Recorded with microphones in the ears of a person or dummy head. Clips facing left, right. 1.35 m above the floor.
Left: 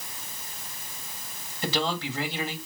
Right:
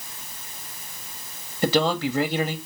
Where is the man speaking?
45° right (ahead or behind), 1.8 m.